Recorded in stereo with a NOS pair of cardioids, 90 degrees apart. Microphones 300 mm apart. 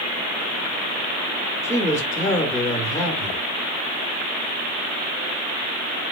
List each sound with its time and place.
1.6 s a man speaking: 10° left, 1.0 m